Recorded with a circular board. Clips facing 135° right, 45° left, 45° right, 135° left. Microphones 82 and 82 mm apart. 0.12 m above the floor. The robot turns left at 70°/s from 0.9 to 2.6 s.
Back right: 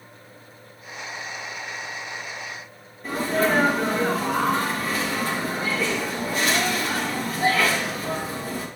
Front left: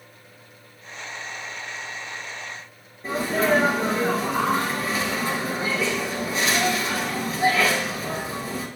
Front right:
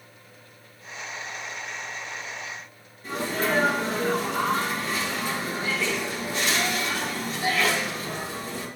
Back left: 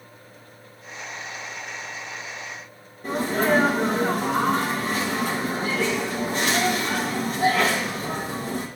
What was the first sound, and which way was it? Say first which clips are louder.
A sneeze: even, back left 5 dB; 105° left.